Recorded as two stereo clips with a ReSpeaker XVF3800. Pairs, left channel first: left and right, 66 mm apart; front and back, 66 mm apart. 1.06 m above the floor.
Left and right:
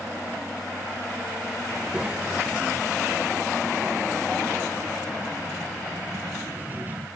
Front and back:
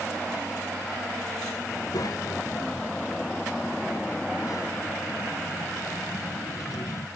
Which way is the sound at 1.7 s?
10° right.